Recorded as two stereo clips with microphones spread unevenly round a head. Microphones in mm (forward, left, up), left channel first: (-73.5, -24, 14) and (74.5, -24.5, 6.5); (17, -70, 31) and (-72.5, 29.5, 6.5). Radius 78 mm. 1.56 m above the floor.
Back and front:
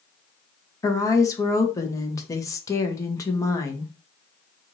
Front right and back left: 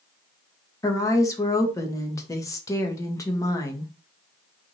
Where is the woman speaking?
115° right, 1.1 m.